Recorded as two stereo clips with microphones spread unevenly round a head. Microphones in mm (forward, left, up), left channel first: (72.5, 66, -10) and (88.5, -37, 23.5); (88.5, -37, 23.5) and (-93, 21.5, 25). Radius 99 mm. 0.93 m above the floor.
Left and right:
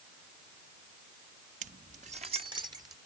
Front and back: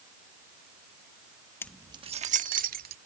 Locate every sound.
1.6 s keys jangling: 95° right; by 3.0 s 155° right